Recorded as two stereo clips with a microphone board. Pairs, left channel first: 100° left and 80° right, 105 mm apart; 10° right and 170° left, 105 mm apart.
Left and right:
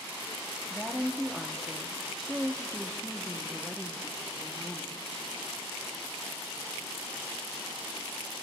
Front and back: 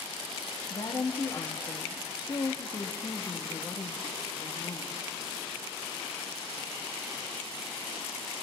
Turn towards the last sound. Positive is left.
turn(degrees=15)